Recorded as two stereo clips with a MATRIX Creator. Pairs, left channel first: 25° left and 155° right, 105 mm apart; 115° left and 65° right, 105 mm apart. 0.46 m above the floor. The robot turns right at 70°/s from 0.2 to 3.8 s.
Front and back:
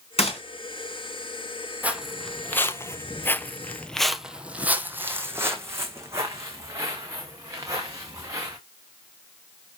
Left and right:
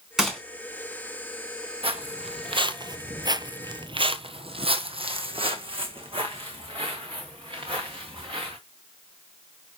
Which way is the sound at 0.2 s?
20° left.